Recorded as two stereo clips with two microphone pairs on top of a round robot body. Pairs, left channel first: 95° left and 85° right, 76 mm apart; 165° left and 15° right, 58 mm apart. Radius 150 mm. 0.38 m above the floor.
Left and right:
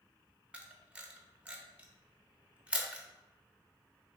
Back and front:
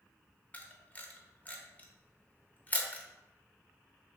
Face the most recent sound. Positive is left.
turn(degrees=-150)